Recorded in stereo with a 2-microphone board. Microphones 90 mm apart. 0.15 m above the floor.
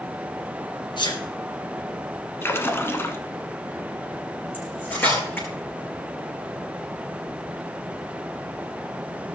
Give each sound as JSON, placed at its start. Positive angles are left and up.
{"t": 1.0, "sound": "a sneeze", "side_deg": 60, "distance_m": 2.5}
{"t": 2.4, "sound": "a splash", "side_deg": 25, "distance_m": 1.2}
{"t": 4.5, "sound": "cutlery clinking", "side_deg": 20, "distance_m": 5.5}